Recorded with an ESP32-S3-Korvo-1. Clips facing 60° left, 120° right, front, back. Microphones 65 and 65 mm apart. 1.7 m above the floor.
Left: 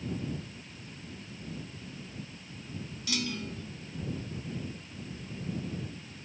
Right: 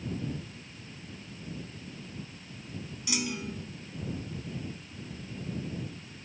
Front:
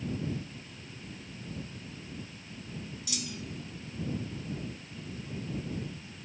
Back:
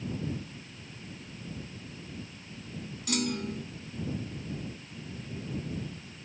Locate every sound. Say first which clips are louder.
3.1 s a clunk: right 1 dB, back 12 dB; 170° left